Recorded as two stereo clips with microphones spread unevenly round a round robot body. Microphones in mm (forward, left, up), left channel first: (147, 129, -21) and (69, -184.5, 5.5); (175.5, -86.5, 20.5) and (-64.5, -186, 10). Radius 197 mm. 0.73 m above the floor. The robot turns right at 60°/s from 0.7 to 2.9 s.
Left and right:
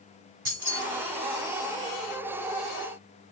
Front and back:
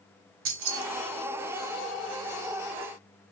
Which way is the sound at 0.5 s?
160° right.